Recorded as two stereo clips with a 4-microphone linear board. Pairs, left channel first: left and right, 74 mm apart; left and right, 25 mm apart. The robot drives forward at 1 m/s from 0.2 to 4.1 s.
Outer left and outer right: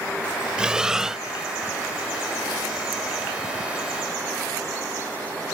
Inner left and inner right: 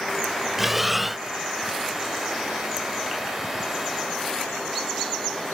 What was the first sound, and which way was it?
Breathing, 10° right (ahead or behind).